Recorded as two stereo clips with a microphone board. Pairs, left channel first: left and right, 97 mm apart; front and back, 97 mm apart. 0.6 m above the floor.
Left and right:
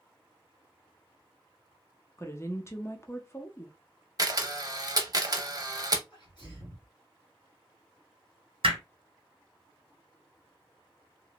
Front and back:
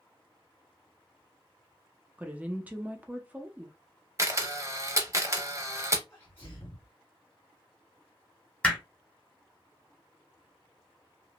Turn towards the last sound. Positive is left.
turn(degrees=-75)